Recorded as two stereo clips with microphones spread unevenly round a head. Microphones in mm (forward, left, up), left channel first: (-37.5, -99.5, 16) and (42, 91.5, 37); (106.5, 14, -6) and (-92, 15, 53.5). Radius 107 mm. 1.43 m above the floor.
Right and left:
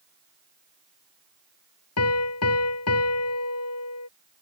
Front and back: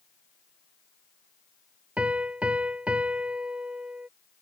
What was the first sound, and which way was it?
A piano, 100° right.